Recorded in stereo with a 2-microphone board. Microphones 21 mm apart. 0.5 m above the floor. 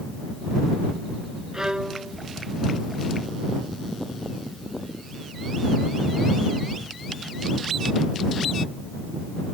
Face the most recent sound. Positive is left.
turn(degrees=-35)  # may be behind; listen again after turning